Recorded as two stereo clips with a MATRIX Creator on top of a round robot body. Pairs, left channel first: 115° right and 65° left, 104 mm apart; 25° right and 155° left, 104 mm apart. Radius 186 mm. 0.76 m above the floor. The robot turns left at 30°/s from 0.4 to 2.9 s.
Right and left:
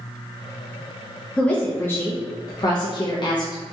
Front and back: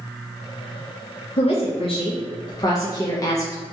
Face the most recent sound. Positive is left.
turn(degrees=-75)